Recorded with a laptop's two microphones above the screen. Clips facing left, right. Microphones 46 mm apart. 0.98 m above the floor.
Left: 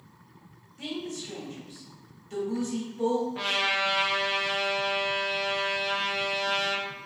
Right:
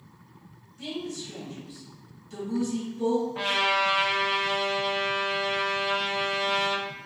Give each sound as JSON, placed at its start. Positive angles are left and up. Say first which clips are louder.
{"t": 0.8, "sound": "a woman speaking", "louder": "right 1 dB", "side_deg": 55, "distance_m": 1.9}
{"t": 3.4, "sound": "a trumpet", "louder": "right 2 dB", "side_deg": 0, "distance_m": 0.7}